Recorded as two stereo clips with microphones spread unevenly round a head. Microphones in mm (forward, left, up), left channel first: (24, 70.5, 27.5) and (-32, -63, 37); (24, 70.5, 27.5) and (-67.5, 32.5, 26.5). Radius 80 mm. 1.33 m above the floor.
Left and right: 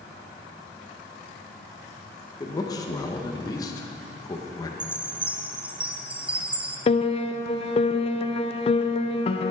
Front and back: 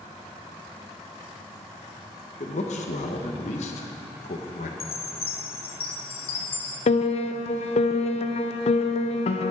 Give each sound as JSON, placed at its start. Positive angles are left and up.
{"t": 2.4, "sound": "a man speaking", "azimuth_deg": 0, "distance_m": 1.1}
{"t": 4.8, "sound": "a chime", "azimuth_deg": -30, "distance_m": 0.6}
{"t": 6.9, "sound": "a piano", "azimuth_deg": 20, "distance_m": 0.7}